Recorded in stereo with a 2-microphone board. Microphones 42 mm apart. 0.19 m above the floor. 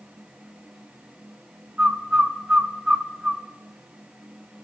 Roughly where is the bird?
Centre.